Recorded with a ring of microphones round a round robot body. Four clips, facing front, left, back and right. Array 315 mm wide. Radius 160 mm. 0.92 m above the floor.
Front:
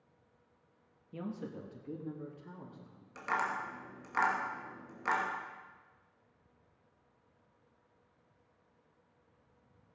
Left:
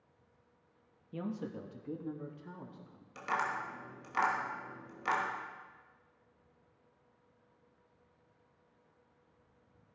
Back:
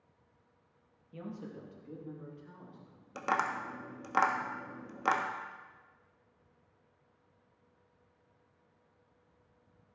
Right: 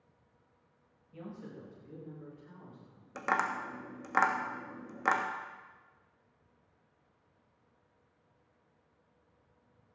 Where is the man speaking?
65° left, 1.7 m.